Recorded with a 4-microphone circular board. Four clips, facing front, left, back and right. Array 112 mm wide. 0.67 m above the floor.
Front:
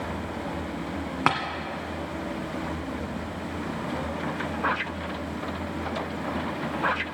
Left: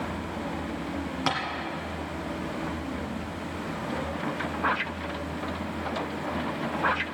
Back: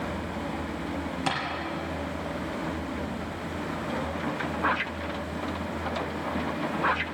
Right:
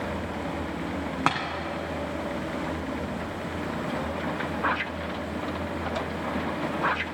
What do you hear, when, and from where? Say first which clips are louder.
1.3 s tapping: right 3 dB, front 6 dB; 35° right, 1.7 m